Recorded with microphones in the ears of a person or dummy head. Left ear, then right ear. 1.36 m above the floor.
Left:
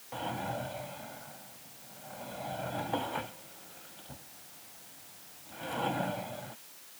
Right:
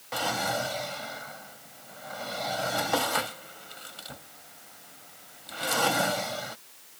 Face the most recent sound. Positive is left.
turn(degrees=-55)  # may be behind; listen again after turning